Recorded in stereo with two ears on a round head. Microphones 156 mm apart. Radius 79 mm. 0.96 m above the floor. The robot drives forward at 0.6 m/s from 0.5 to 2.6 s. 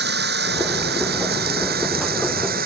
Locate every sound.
0.0 s running water: 65° right (ahead or behind); by 2.7 s 55° right (ahead or behind)